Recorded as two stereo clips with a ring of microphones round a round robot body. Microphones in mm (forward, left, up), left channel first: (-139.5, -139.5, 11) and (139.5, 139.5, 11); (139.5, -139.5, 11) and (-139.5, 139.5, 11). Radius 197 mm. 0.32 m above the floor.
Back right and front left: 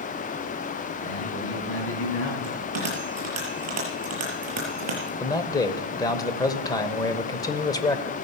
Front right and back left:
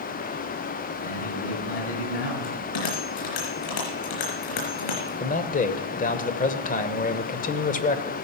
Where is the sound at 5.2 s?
70° right, 1.0 m.